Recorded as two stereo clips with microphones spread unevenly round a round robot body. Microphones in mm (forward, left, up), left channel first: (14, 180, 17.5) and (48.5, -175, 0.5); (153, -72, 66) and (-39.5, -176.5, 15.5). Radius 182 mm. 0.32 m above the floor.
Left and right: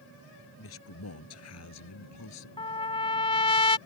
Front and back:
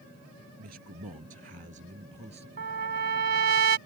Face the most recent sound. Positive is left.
turn(degrees=170)